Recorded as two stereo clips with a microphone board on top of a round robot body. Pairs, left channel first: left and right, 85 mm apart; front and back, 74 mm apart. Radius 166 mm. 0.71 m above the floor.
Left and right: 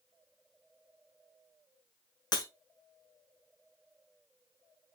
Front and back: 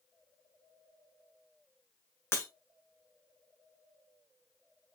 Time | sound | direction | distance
2.3 | breaking glass | 55° left | 1.5 m